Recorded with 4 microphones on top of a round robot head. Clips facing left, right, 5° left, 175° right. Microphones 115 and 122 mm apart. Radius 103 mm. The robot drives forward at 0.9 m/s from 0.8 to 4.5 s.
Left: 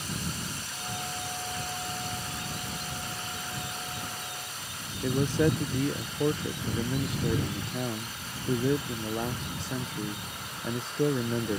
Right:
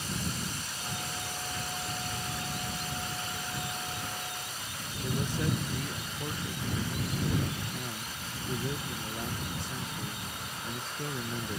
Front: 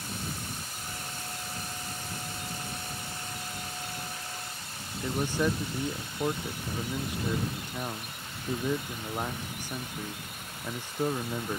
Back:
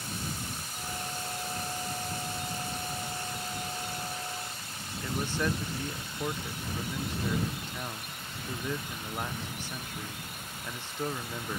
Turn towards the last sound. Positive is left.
turn(degrees=85)